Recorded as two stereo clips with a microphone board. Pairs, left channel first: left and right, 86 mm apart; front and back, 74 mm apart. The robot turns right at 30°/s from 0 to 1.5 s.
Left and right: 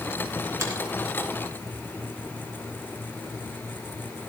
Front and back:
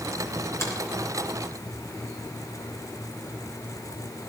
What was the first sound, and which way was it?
A finger snap, 45° right.